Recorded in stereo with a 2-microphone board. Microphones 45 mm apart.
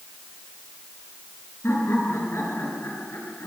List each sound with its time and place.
1.6 s laughter: 60° left (ahead or behind), 7.5 m; by 3.5 s 70° left (ahead or behind), 7 m